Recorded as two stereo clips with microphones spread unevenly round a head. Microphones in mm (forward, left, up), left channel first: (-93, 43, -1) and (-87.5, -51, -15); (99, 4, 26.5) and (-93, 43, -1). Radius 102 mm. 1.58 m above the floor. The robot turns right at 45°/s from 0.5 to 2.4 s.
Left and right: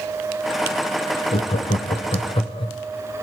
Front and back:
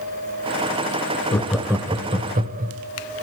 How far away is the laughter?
About 0.8 m.